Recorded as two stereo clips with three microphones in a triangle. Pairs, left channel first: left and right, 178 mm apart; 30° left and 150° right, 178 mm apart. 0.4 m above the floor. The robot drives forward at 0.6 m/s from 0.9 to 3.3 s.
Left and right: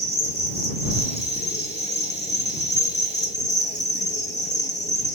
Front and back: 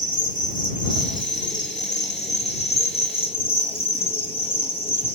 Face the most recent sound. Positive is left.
turn(degrees=85)